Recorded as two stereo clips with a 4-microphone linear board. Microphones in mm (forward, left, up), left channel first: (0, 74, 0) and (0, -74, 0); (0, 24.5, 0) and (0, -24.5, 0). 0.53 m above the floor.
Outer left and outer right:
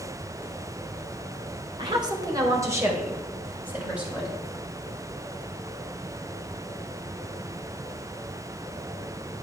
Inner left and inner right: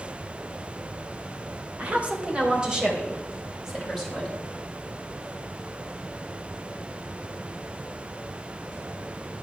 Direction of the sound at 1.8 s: 30° right (ahead or behind).